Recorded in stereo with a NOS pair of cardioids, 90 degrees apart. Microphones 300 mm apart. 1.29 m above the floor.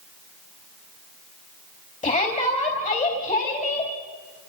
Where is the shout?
25° left, 3.5 m.